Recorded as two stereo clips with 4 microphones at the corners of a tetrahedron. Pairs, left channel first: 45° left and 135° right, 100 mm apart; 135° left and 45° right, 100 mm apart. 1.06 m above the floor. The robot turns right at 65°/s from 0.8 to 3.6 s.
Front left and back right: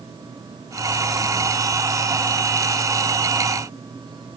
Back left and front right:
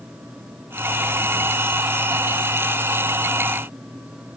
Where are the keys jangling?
No keys jangling in this recording.